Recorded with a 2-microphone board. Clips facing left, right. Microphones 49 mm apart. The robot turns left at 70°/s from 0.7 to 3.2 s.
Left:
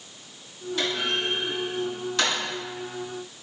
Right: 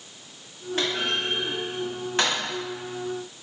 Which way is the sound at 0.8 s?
45° right (ahead or behind).